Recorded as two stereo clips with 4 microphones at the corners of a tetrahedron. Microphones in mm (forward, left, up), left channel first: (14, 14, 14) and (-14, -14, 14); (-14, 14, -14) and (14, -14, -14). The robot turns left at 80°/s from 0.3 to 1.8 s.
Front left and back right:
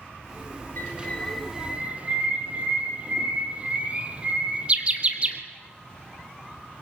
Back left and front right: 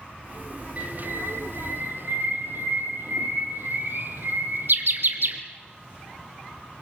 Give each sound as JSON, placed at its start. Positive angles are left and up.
{"t": 0.8, "sound": "a bird", "azimuth_deg": 10, "distance_m": 2.5}